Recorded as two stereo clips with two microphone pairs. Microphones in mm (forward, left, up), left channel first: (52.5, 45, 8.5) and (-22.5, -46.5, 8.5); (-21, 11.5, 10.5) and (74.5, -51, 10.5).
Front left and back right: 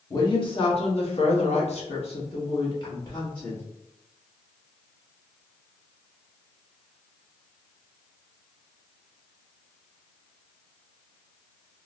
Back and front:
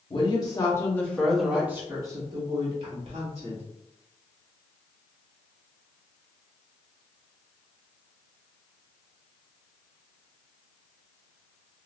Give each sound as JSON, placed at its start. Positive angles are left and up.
{"t": 0.1, "sound": "a woman speaking", "azimuth_deg": 100, "distance_m": 1.0}